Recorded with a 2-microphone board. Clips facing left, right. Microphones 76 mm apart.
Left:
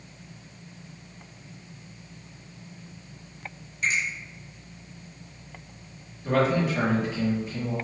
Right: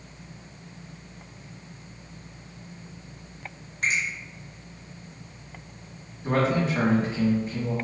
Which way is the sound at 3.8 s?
55° right (ahead or behind).